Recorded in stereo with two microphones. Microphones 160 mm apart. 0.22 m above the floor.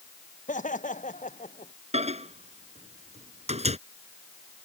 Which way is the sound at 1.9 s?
45° right (ahead or behind).